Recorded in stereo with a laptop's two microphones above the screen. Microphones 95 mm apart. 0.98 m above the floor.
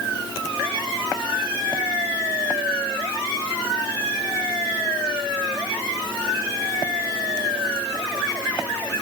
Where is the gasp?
No gasp in this recording.